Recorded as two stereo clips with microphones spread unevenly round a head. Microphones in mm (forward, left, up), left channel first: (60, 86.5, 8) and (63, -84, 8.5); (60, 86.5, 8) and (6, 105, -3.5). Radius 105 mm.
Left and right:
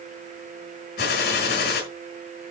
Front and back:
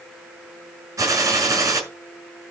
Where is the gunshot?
140° left, 6.5 m.